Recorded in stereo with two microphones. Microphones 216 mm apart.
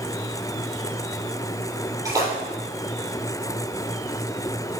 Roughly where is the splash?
Centre.